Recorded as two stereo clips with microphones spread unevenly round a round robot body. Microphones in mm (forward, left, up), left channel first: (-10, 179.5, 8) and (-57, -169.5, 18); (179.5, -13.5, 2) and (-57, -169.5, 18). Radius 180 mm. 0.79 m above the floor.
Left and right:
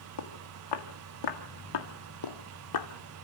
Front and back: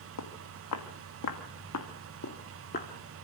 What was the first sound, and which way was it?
Footsteps, 50° left.